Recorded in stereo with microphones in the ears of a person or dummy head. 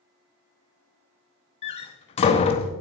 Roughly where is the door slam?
Left.